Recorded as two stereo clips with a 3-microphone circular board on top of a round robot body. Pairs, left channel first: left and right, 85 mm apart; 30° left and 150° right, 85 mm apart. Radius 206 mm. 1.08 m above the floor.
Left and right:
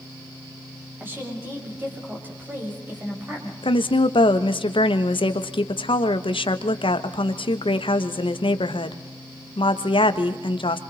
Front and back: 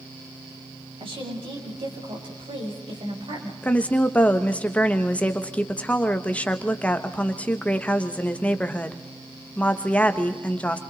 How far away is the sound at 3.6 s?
About 1.4 m.